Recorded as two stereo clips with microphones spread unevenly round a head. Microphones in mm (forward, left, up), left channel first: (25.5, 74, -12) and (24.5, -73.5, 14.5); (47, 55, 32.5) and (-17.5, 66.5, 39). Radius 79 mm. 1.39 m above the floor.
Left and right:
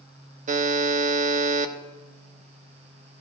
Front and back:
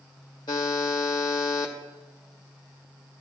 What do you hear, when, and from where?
0.5 s a buzzer: 55° right, 0.6 m